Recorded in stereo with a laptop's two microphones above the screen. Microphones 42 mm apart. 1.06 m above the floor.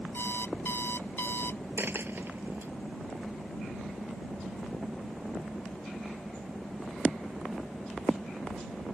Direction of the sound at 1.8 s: 65° right (ahead or behind).